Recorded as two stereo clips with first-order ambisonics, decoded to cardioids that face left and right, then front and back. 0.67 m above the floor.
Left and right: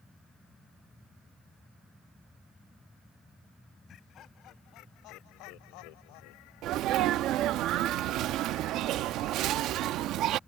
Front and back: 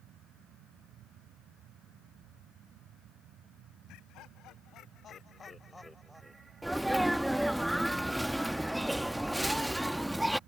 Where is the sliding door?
I don't hear a sliding door.